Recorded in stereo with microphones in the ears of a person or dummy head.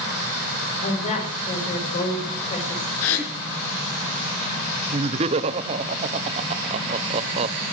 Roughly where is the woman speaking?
Left.